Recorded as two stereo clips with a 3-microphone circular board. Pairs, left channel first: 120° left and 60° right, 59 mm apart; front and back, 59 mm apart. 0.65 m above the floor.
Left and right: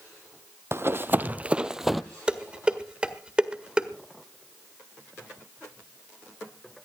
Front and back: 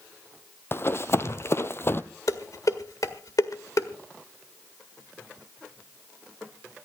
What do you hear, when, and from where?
0.7 s running footsteps: 35° right, 1.0 m; by 2.0 s 30° left, 0.9 m
2.3 s dishes clattering: 15° left, 1.6 m